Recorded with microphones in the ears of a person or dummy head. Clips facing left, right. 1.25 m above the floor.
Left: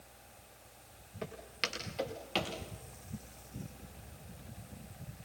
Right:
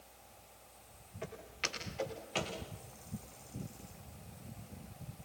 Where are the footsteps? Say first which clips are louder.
Left 2 dB; 60° left (ahead or behind), 6.5 m; by 2.6 s 50° left (ahead or behind), 7 m.